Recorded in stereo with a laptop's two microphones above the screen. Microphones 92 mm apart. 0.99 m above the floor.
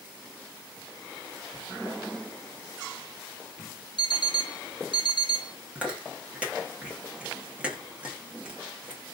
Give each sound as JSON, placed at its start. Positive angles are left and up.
{"t": 4.0, "sound": "an alarm clock", "side_deg": 60, "distance_m": 0.8}
{"t": 5.8, "sound": "chewing", "side_deg": -15, "distance_m": 1.7}